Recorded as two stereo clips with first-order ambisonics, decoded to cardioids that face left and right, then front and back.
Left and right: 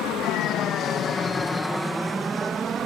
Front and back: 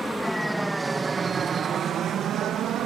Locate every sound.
0.0 s an aircraft: 80° left; by 2.9 s 145° right